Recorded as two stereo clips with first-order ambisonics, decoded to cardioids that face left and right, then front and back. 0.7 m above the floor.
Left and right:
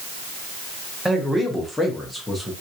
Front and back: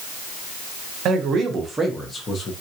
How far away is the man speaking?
About 0.9 m.